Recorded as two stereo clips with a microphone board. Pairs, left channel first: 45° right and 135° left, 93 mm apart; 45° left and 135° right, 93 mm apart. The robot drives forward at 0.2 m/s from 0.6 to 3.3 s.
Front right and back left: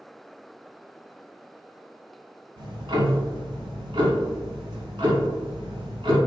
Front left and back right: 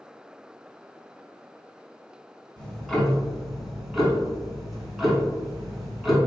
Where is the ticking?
125° left, 0.6 m; by 6.2 s 135° left, 0.7 m.